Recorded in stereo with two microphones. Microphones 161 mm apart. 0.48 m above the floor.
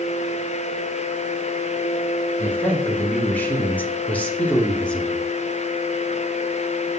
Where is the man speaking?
10° left (ahead or behind), 1.8 m; by 5.2 s 5° left (ahead or behind), 0.9 m.